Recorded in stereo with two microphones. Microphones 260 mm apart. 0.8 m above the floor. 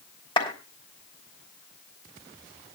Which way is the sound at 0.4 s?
20° left (ahead or behind).